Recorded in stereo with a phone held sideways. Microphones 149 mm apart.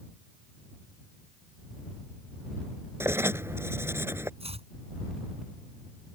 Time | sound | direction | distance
3.0 | writing | 15° right (ahead or behind) | ?
4.4 | chopping | 45° right (ahead or behind) | ?